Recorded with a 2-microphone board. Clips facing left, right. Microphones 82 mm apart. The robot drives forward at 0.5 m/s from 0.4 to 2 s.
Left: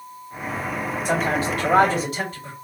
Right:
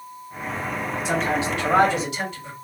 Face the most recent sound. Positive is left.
turn(degrees=40)  # may be behind; listen again after turning